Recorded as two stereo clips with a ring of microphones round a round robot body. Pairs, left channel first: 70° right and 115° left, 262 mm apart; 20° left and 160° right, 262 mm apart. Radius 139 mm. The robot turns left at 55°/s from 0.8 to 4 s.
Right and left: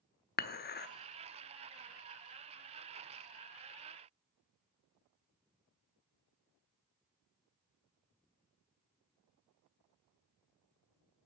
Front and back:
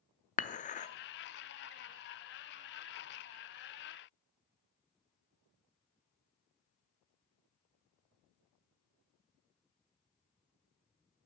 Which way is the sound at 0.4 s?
30° right.